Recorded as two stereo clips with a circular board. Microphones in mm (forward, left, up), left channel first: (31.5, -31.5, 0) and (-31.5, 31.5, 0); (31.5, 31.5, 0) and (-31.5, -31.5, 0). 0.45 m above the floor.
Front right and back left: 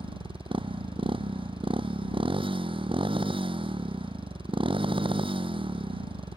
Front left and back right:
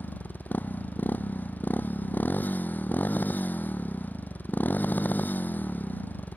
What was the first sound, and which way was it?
A motorcycle, 115° left.